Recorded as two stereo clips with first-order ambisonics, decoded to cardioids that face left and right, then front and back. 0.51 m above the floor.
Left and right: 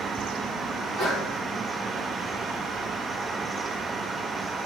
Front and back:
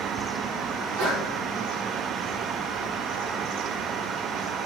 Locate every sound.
0.8 s a sneeze: 165° right, 2.0 m